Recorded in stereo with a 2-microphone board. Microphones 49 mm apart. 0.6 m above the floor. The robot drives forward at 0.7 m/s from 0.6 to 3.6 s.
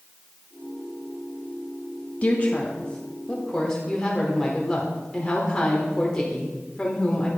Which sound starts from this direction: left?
A woman speaking, at 2.2 s.